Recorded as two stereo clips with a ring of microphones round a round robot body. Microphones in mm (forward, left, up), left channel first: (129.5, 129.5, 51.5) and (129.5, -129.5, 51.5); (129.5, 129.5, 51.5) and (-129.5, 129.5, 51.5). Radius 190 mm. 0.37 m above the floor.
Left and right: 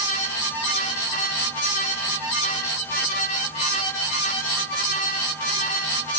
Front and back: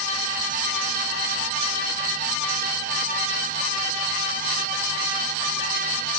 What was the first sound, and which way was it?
Only background noise.